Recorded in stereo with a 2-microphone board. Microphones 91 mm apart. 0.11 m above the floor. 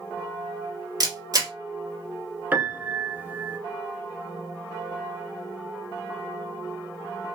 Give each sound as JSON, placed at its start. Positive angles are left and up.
{"t": 1.0, "sound": "a camera shutter", "side_deg": -45, "distance_m": 1.1}
{"t": 2.5, "sound": "a piano", "side_deg": -20, "distance_m": 0.6}